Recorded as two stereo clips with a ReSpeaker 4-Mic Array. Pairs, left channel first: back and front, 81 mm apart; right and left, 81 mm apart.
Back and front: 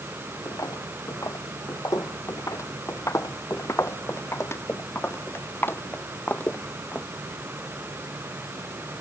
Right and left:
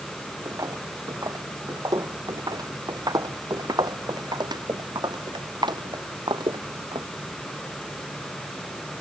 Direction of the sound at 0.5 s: 135° left.